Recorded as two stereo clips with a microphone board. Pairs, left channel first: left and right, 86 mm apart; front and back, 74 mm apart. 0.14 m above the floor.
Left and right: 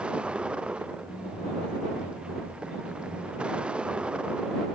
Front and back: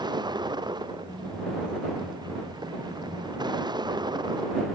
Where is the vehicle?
170° right.